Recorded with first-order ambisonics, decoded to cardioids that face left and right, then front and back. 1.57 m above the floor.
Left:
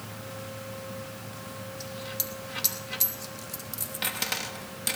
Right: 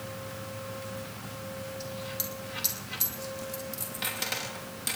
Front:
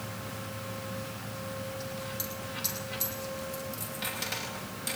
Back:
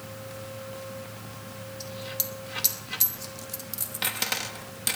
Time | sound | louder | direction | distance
1.8 | a dropped coin | left 1 dB, back 2 dB | 160° left | 1.0 m